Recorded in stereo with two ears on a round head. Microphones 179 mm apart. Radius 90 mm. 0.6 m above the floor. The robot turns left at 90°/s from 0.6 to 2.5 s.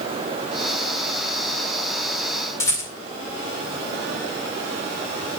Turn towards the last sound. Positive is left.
turn(degrees=15)  # may be behind; listen again after turning